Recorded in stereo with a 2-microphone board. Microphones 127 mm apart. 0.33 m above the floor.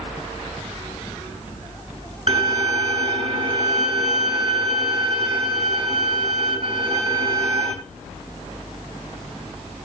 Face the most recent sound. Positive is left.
turn(degrees=-50)  # may be behind; listen again after turning